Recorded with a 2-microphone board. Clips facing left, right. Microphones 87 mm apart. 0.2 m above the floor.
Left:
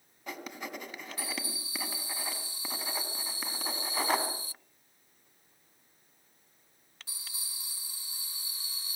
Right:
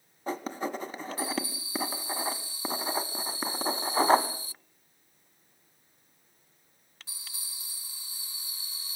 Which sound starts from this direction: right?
Writing, at 0.3 s.